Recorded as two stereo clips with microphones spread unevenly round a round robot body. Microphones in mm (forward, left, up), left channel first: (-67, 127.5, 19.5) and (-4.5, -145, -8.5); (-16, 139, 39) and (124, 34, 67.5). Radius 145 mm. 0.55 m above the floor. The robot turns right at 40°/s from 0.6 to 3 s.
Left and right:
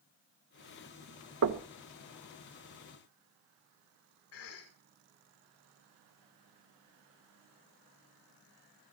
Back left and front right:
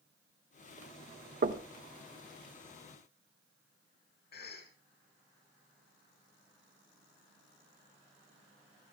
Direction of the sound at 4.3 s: 140° left.